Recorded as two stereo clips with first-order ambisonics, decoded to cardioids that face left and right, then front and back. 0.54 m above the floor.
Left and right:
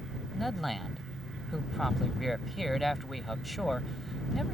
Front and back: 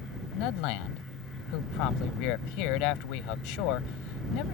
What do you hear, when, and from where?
0.3 s a man speaking: straight ahead